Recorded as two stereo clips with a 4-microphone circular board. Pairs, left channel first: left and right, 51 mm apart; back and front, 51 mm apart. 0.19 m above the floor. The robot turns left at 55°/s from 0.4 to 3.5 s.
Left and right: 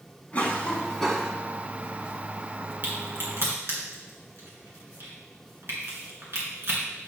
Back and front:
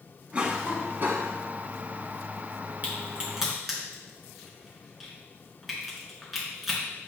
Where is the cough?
50° left, 1.3 m; by 1.4 s 5° right, 1.3 m.